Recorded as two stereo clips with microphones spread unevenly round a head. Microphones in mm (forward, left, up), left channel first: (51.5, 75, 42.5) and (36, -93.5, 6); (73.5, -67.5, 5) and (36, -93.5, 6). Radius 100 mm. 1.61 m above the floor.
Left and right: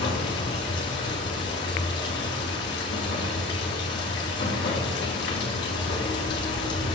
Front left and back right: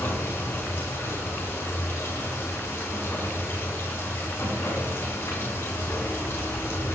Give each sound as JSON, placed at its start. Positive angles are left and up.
{"t": 0.0, "sound": "running water", "azimuth_deg": 105, "distance_m": 3.5}